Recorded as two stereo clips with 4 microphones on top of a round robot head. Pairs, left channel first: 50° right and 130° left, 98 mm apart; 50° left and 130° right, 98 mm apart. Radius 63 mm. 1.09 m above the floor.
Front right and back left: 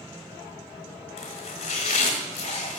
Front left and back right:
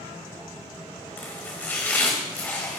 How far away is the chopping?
About 1.2 m.